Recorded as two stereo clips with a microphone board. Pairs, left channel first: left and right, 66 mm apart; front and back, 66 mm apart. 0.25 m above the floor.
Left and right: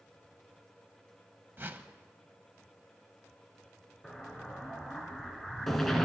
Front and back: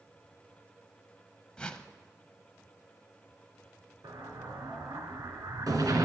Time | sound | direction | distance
1.6 | a whoosh | 65° right | 0.8 m
4.0 | an explosion | 175° left | 1.9 m